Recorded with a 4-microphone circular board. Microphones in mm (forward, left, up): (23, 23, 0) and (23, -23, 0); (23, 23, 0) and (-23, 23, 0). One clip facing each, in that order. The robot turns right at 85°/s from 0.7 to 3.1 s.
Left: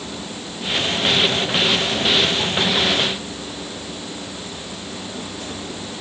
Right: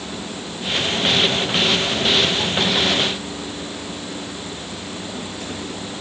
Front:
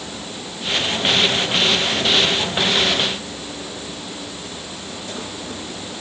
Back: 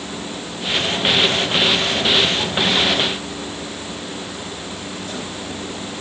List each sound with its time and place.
Only background noise.